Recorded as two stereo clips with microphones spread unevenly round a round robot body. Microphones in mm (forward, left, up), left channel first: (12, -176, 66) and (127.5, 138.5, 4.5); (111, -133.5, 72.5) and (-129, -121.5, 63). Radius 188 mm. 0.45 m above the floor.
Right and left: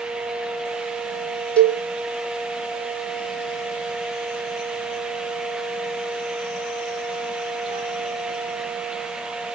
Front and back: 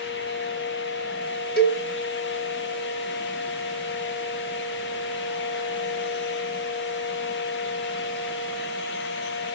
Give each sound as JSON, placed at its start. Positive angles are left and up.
{"t": 1.6, "sound": "a cowbell", "azimuth_deg": -10, "distance_m": 1.4}